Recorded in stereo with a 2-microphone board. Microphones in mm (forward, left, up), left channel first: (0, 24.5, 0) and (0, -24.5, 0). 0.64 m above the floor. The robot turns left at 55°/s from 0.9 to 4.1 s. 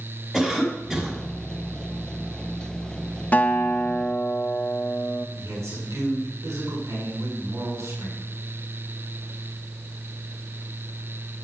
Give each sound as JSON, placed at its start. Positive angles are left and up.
{"t": 0.3, "sound": "a cough", "side_deg": 10, "distance_m": 6.0}
{"t": 3.3, "sound": "a guitar", "azimuth_deg": 100, "distance_m": 1.0}
{"t": 5.4, "sound": "a man speaking", "side_deg": -80, "distance_m": 7.0}